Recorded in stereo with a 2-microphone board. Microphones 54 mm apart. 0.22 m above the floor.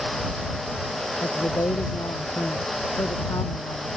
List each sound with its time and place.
1.2 s a woman speaking: 80° left